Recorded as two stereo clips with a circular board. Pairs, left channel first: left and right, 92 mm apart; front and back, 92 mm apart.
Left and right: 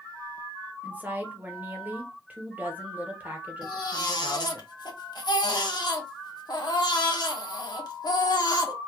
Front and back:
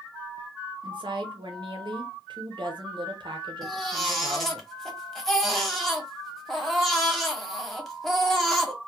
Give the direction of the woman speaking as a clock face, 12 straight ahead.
5 o'clock.